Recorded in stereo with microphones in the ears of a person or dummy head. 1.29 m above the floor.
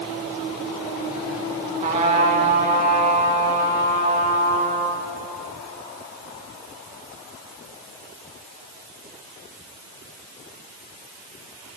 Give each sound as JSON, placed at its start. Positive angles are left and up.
{"t": 1.8, "sound": "a trumpet", "side_deg": -35, "distance_m": 0.8}